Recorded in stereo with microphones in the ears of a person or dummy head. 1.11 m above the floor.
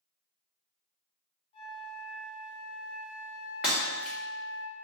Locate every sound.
1.5 s a flute: 35° left (ahead or behind), 0.8 m
3.6 s breaking glass: 5° right (ahead or behind), 1.0 m